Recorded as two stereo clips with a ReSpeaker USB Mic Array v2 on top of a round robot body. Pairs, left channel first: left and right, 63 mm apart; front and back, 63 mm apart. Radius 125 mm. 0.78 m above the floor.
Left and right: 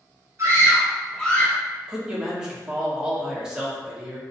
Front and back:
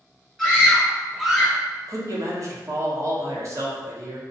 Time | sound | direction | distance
0.4 | a scream | 95° right | 1.0 m
1.9 | a man speaking | 170° right | 0.9 m